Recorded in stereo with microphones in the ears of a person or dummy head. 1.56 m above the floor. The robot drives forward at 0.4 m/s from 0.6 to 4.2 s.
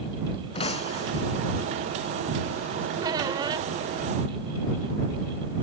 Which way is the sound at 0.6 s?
35° left (ahead or behind).